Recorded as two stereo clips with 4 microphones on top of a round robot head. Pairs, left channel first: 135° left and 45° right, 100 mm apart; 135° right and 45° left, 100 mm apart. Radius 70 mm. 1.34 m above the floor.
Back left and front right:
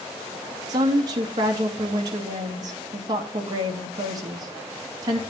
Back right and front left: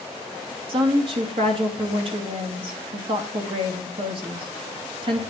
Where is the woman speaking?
10° left, 2.5 m.